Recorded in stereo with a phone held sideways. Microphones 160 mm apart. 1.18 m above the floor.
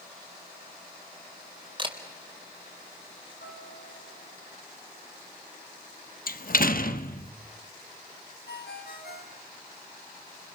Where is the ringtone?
75° left (ahead or behind), 3.5 m.